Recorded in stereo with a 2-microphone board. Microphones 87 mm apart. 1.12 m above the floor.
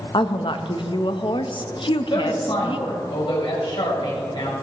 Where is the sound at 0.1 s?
70° left (ahead or behind), 0.9 m.